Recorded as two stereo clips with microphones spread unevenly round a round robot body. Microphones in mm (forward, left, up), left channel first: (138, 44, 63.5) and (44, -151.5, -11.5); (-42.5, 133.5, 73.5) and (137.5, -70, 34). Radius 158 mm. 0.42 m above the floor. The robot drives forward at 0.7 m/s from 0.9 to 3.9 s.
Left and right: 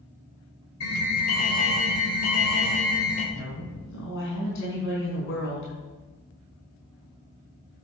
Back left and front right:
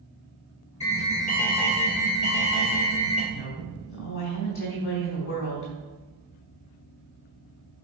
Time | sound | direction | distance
0.8 | an alarm | 65° left | 2.5 m
3.3 | a woman speaking | 115° left | 4 m